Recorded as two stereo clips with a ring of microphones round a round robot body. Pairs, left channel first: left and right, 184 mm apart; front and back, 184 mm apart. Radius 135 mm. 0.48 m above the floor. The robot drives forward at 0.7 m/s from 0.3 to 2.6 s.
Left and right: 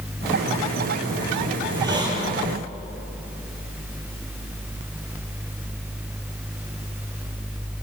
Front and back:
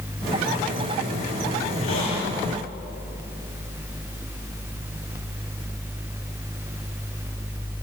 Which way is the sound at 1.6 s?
20° right.